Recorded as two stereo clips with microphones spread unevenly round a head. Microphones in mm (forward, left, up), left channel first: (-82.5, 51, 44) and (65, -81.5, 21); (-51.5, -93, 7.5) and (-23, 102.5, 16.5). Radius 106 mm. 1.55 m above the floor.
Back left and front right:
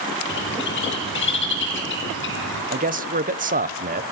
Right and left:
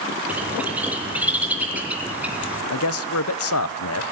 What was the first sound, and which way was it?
A bird, 165° left.